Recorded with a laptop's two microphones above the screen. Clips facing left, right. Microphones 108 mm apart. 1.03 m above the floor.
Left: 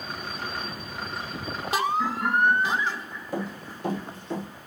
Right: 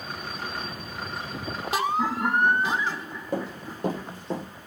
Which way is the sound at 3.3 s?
55° right (ahead or behind).